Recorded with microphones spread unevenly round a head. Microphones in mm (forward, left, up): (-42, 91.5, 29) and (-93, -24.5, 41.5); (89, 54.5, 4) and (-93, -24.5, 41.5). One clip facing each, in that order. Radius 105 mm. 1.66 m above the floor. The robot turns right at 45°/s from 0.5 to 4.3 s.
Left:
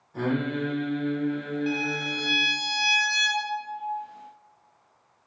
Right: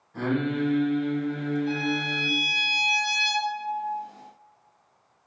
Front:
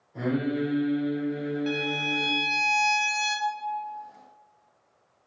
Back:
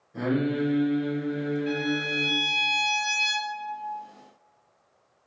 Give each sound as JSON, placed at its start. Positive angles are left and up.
{"t": 0.1, "sound": "singing", "azimuth_deg": 145, "distance_m": 1.7}
{"t": 1.7, "sound": "a violin", "azimuth_deg": 60, "distance_m": 0.7}